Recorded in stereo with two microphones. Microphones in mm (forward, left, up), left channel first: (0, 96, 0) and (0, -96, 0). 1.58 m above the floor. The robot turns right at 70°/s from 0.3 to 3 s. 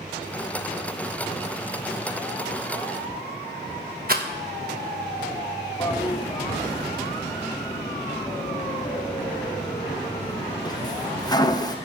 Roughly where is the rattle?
Right.